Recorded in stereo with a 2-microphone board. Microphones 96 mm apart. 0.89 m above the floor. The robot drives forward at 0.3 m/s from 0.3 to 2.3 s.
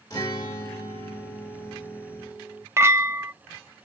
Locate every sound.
0.1 s a guitar: 35° left (ahead or behind), 2.5 m; by 2.6 s 30° left (ahead or behind), 3 m
2.8 s a clink: 25° right (ahead or behind), 0.6 m